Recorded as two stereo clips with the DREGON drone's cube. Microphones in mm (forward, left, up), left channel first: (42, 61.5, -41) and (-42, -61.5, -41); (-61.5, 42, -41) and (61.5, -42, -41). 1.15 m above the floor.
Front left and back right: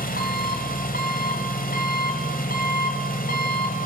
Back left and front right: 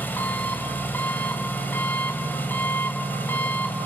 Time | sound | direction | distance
0.0 | an engine running | 70° left | 2.5 m